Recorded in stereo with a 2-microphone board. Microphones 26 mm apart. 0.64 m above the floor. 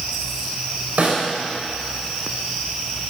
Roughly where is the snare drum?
Right.